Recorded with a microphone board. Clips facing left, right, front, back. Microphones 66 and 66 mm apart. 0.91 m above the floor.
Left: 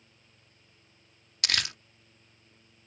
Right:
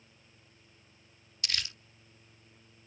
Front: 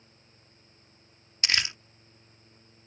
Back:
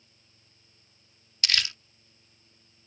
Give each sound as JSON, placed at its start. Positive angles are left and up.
{"t": 1.4, "sound": "crumpling", "azimuth_deg": 70}